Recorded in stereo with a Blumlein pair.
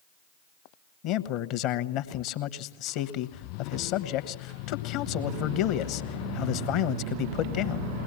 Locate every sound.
1.0 s a man speaking: 40° left, 1.2 m